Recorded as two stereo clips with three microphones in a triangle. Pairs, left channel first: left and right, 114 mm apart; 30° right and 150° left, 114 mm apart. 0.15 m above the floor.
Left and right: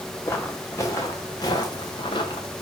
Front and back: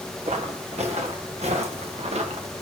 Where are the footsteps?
160° left, 2.5 m; by 2.5 s 130° left, 1.6 m.